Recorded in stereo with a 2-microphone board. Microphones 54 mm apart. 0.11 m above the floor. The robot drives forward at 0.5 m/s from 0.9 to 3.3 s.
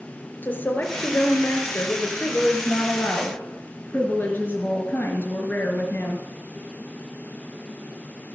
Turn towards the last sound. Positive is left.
turn(degrees=35)  # may be behind; listen again after turning